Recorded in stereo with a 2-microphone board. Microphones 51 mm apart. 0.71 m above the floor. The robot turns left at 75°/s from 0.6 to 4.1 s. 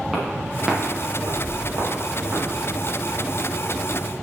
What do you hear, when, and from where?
0.1 s footsteps: 10° right (ahead or behind), 4.5 m; by 2.5 s 25° right (ahead or behind), 7 m